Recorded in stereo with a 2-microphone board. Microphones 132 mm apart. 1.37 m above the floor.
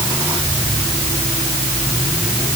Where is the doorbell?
No doorbell in this recording.